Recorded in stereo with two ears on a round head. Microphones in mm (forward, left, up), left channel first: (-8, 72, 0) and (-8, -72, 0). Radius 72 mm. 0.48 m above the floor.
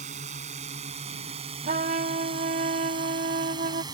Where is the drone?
45° right (ahead or behind); by 3.9 s 25° right (ahead or behind).